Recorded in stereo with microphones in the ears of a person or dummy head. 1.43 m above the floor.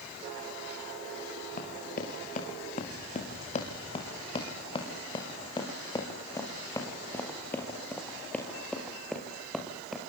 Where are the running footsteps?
50° left (ahead or behind), 5.5 m; by 10.0 s centre (ahead or behind), 6.5 m.